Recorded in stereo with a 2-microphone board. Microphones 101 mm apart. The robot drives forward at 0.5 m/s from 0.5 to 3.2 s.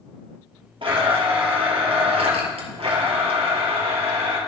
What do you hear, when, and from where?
0.8 s a blender: 65° right (ahead or behind), 2.5 m; by 4.4 s 80° right, 2 m